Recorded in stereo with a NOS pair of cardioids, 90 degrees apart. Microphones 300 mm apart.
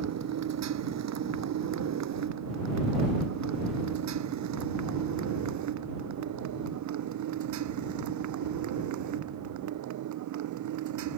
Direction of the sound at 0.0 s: 60° right.